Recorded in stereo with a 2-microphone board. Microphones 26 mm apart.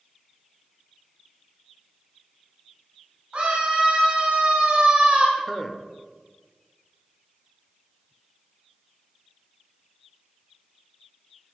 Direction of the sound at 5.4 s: 10° left (ahead or behind).